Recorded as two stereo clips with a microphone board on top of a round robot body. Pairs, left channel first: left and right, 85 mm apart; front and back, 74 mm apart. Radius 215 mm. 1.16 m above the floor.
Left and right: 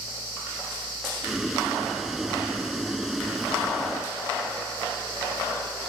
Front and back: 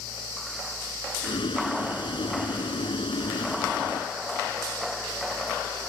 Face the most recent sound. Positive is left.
turn(degrees=0)